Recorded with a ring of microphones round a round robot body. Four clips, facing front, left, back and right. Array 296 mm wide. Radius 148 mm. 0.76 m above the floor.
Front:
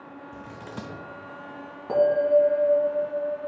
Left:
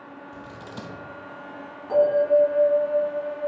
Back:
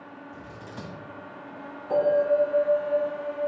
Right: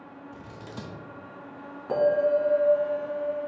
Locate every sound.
0.3 s scissors: 20° left, 1.0 m
1.9 s a bell: 20° right, 2.5 m